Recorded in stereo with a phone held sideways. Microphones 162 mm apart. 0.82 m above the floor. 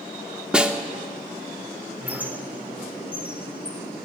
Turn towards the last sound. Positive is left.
turn(degrees=-10)  # may be behind; listen again after turning